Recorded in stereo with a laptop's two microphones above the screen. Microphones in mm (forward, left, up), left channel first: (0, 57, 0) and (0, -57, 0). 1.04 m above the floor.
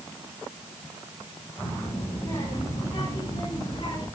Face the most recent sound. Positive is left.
turn(degrees=40)  # may be behind; listen again after turning